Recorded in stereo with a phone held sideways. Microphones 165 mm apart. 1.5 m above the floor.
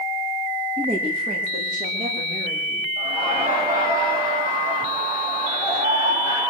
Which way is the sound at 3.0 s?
20° right (ahead or behind).